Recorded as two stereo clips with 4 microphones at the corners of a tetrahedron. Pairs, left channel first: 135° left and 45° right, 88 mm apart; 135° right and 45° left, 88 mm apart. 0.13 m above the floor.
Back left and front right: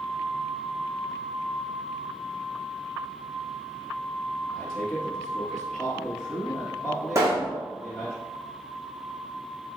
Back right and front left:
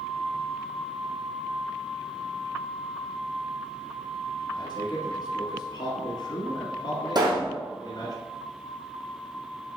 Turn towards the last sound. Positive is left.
turn(degrees=10)